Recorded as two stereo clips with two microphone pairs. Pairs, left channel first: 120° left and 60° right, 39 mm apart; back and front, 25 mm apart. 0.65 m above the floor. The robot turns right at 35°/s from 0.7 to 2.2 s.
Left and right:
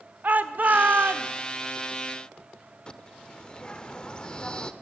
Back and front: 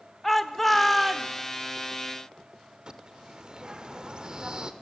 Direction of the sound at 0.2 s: 100° right.